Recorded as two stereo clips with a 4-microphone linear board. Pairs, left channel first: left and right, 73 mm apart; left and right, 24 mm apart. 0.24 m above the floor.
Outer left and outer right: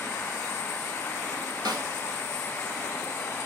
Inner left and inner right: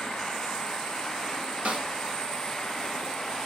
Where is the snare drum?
65° right (ahead or behind), 1.2 m.